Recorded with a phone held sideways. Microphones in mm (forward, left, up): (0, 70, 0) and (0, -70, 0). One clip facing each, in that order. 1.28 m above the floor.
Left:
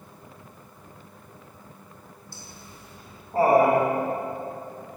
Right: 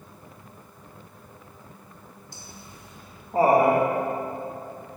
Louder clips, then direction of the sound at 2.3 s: Even; 20° right (ahead or behind).